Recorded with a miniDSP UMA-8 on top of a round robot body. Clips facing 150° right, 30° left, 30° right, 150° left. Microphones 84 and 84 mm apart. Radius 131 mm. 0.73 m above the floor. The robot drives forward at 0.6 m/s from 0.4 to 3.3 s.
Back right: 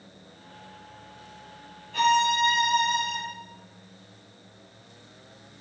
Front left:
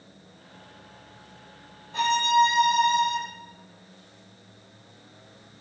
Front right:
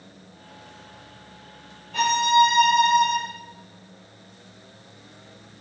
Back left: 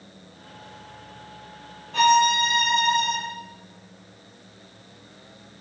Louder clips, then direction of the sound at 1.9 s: Front left 1 dB, back left 1 dB; 100° left.